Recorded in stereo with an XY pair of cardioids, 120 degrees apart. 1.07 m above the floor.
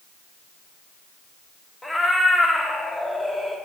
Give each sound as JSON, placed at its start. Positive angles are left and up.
{"t": 1.8, "sound": "a cat meowing", "azimuth_deg": 5, "distance_m": 1.1}